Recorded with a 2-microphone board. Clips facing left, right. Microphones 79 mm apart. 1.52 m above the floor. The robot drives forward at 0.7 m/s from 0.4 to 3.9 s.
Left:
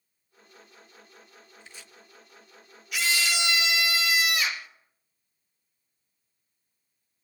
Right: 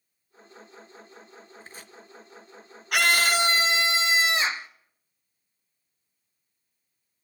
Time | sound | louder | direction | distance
1.6 | chopping | right 2 dB | 40° right (ahead or behind) | 1.2 m
2.9 | a scream | right 6 dB | 60° right (ahead or behind) | 0.6 m